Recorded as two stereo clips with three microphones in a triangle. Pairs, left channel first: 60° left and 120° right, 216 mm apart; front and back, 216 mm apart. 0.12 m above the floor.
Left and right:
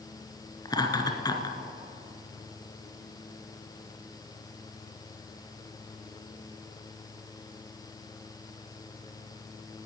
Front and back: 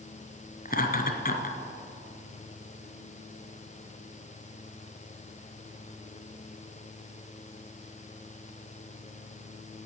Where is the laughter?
Straight ahead, 1.4 m.